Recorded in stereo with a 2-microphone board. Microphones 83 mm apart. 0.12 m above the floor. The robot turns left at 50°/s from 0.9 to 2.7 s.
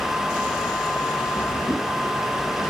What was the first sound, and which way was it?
A whoosh, 20° left (ahead or behind).